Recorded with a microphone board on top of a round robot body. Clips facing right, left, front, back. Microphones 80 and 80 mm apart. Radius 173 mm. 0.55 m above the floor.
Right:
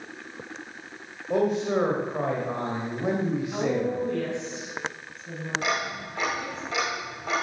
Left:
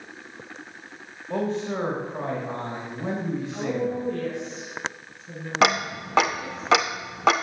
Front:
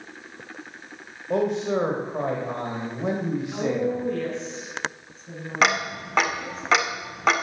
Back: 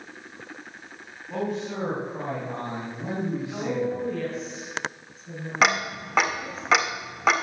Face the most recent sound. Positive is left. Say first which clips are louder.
# left 10 dB, even
turn(degrees=90)